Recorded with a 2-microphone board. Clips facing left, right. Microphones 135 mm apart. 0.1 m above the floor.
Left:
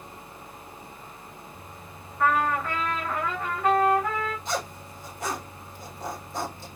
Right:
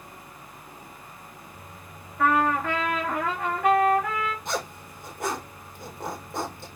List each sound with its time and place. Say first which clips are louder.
2.2 s a trumpet: right 2 dB; 85° right, 2.5 m
4.5 s a zipper: even; 60° right (ahead or behind), 3 m